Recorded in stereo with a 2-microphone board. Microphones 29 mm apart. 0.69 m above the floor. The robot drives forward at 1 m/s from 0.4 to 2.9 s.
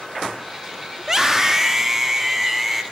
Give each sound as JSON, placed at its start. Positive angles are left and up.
{"t": 1.0, "sound": "a scream", "side_deg": -25, "distance_m": 1.3}